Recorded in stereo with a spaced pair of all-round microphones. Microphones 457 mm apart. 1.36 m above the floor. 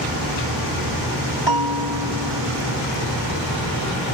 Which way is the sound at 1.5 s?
65° right (ahead or behind).